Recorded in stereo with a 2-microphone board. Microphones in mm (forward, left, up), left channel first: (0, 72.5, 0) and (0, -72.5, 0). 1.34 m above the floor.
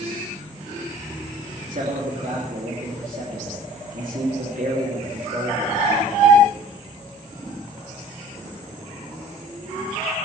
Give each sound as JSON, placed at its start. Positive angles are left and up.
{"t": 1.7, "sound": "a man speaking", "side_deg": -70, "distance_m": 3.0}